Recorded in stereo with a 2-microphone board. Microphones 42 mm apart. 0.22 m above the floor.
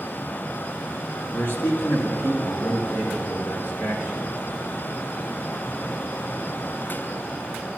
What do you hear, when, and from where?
1.3 s a man speaking: 55° left (ahead or behind), 2.5 m; by 4.2 s 70° left (ahead or behind), 3.5 m